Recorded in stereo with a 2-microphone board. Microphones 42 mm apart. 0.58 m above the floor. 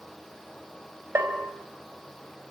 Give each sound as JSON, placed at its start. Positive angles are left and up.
{"t": 1.1, "sound": "a bell", "side_deg": -75, "distance_m": 3.5}